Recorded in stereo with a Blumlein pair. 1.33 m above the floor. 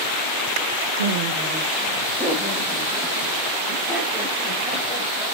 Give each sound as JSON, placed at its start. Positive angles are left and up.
{"t": 1.0, "sound": "laughter", "azimuth_deg": -70, "distance_m": 0.8}